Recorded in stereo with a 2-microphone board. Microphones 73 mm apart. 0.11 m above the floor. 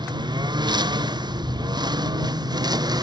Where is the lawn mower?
85° right; by 3.0 s 65° right (ahead or behind).